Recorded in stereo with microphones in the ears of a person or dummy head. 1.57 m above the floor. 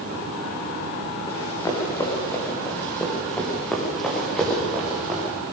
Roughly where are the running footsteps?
Left.